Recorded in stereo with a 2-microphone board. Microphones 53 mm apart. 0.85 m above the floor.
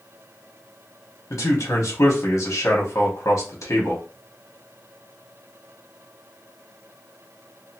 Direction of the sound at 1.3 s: 75° left (ahead or behind).